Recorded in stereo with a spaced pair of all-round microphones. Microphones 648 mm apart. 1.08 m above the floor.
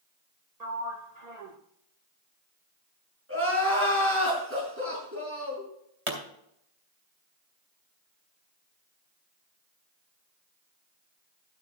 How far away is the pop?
About 2.5 m.